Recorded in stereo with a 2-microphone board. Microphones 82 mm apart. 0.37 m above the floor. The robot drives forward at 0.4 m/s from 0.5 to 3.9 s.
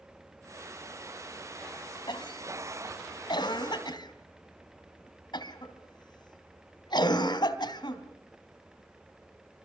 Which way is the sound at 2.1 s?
70° left (ahead or behind).